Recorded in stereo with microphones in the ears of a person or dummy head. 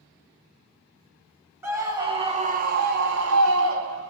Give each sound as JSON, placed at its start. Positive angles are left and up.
{"t": 1.6, "sound": "a scream", "side_deg": -15, "distance_m": 1.1}